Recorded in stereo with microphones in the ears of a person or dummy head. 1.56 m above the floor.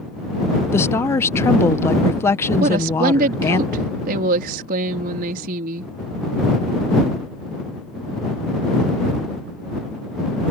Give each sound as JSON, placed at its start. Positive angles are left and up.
{"t": 0.7, "sound": "a woman speaking", "side_deg": 15}
{"t": 2.6, "sound": "a woman speaking", "side_deg": -40}